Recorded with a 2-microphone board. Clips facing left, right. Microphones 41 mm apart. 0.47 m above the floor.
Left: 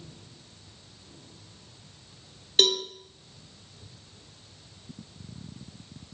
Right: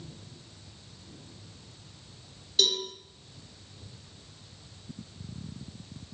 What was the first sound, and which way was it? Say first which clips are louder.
A cowbell: left 4 dB; 50° left (ahead or behind).